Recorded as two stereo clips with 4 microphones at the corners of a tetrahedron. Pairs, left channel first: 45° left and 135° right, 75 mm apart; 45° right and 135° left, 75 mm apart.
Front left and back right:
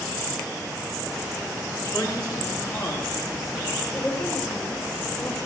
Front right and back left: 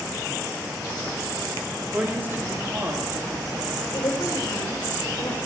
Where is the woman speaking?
35° right, 3.5 m.